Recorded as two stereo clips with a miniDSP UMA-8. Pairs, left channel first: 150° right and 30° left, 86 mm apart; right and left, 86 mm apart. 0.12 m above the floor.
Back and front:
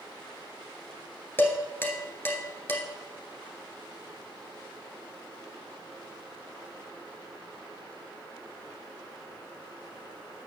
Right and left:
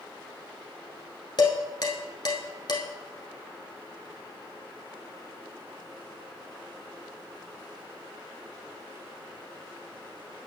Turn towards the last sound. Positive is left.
turn(degrees=-95)